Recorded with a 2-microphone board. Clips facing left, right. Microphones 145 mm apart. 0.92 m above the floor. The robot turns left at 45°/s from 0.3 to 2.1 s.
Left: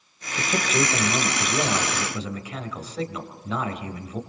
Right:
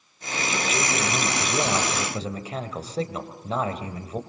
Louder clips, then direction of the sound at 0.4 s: Left 3 dB; 45° left.